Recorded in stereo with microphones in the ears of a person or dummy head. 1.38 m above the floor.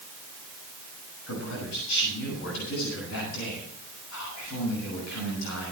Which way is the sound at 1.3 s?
85° left.